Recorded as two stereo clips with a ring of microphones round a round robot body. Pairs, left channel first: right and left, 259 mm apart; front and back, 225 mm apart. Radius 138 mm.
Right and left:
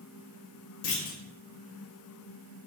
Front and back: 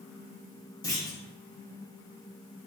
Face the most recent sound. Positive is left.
turn(degrees=-70)